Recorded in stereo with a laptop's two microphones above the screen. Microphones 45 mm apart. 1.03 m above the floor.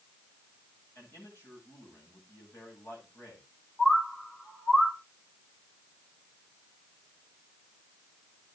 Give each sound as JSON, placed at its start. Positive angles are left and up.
{"t": 0.9, "sound": "a man speaking", "side_deg": 80, "distance_m": 8.5}
{"t": 3.8, "sound": "a bird", "side_deg": 15, "distance_m": 1.3}